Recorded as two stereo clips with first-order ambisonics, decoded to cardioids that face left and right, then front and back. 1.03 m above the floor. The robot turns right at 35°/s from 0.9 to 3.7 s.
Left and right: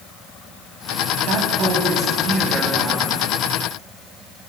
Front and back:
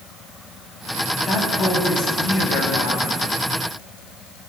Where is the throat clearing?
No throat clearing in this recording.